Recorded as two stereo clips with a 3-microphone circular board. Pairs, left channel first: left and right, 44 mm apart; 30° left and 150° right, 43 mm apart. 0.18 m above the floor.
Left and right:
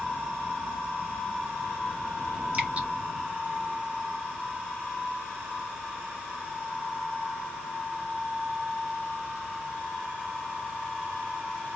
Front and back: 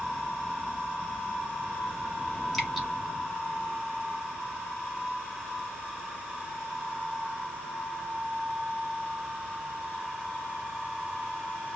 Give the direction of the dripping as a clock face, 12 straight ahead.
2 o'clock.